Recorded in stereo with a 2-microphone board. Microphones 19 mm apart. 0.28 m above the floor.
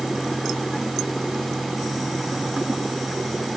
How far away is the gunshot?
I don't hear a gunshot.